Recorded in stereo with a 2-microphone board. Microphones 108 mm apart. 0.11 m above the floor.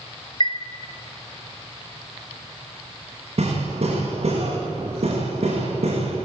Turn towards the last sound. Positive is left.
turn(degrees=-65)  # may be behind; listen again after turning